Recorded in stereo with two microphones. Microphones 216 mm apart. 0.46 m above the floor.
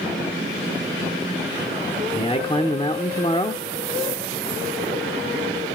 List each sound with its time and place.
2.1 s a man speaking: 25° left (ahead or behind), 0.8 m